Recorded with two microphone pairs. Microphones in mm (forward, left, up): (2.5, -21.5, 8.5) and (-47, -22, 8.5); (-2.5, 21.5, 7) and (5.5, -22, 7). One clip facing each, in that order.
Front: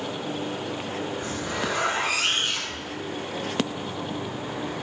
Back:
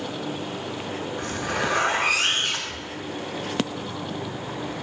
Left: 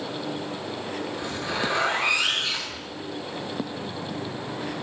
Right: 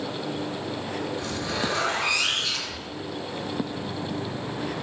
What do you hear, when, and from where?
1.2 s a zipper: 165° left, 5.5 m